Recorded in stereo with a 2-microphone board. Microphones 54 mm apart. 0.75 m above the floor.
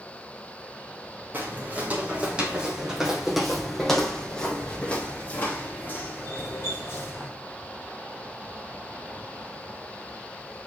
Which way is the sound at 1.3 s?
35° right (ahead or behind).